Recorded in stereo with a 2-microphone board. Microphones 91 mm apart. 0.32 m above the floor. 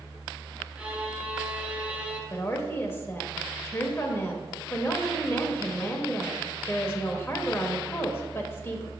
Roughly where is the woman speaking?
Left.